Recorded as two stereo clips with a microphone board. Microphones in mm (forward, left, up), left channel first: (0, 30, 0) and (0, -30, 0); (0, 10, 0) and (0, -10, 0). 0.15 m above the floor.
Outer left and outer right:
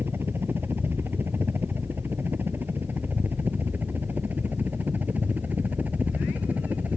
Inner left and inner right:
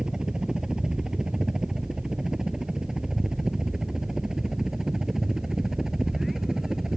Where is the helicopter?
40° right (ahead or behind); by 7.0 s 30° right (ahead or behind).